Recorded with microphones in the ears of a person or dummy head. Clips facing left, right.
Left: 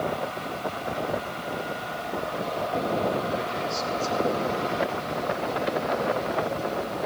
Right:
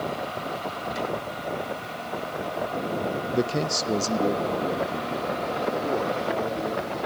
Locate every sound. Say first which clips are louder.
3.3 s a man speaking: right 4 dB; 65° right (ahead or behind), 0.8 m; by 7.0 s 75° right (ahead or behind), 4.5 m